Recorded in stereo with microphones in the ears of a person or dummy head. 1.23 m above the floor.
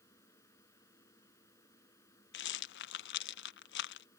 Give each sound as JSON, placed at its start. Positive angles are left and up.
{"t": 0.0, "sound": "a fan", "side_deg": 15}
{"t": 2.3, "sound": "a rattle", "side_deg": 60}